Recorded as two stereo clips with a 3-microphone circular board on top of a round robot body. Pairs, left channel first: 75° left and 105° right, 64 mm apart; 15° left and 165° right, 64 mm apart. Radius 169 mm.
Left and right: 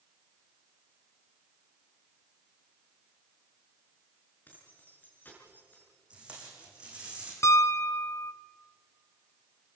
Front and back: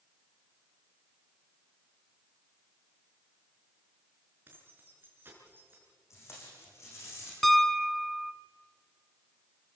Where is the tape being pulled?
30° right, 6.5 m.